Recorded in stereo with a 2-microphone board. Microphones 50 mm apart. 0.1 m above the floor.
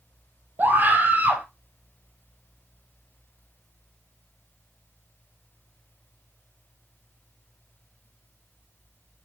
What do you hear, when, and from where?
0.6 s a scream: 40° right (ahead or behind), 1.8 m